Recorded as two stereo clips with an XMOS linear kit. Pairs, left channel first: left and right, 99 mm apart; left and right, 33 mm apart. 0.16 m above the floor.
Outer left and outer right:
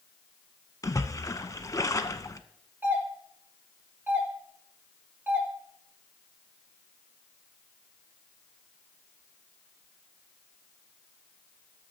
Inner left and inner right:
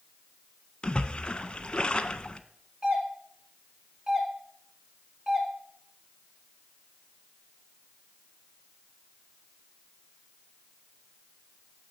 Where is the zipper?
No zipper in this recording.